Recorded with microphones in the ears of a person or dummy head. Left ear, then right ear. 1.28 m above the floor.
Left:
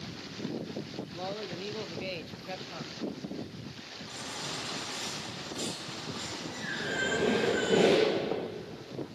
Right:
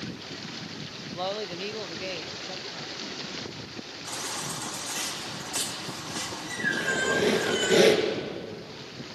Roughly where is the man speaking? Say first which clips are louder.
Right 7 dB; right.